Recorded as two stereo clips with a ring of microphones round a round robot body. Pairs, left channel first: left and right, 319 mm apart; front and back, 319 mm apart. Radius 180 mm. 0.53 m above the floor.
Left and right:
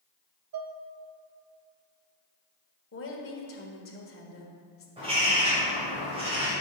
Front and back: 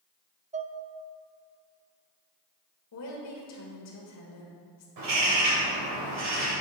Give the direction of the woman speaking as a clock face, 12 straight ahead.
11 o'clock.